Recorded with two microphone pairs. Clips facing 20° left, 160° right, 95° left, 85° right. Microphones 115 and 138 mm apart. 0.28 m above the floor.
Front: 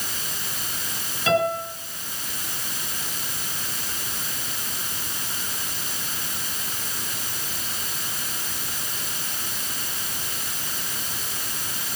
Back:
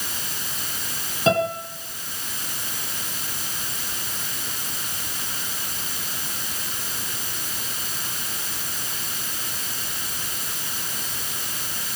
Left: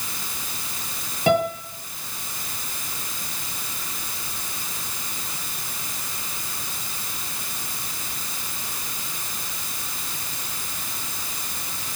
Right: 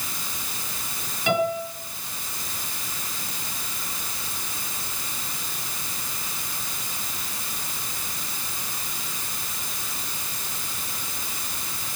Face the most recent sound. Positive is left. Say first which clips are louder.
# back 1 dB, left 3 dB
turn(degrees=145)